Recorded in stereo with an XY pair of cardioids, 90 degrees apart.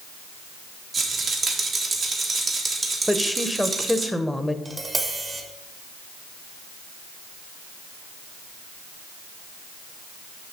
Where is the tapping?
30° right, 1.4 m.